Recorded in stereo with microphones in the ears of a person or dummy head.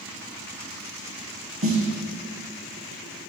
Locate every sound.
1.6 s a snare drum: 35° right (ahead or behind), 1.1 m